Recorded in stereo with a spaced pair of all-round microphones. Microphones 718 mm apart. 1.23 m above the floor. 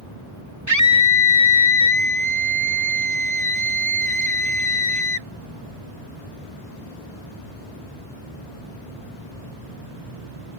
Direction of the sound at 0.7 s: 25° right (ahead or behind).